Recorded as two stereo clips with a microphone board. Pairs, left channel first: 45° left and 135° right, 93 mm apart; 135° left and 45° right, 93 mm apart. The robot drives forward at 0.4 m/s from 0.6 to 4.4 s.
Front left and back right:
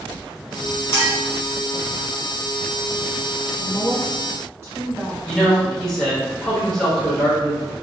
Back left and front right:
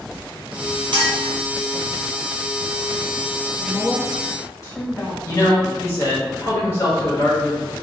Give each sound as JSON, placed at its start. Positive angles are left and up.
{"t": 0.9, "sound": "a clink", "azimuth_deg": -20, "distance_m": 1.6}
{"t": 3.6, "sound": "a woman speaking", "azimuth_deg": 170, "distance_m": 0.8}
{"t": 5.2, "sound": "a man speaking", "azimuth_deg": 120, "distance_m": 1.3}